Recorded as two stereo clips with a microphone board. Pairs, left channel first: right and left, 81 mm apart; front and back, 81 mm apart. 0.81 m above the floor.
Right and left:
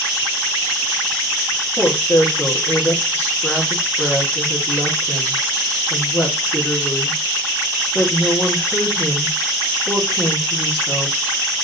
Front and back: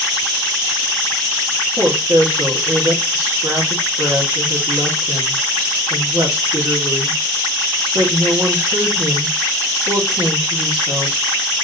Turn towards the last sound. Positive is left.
turn(degrees=-150)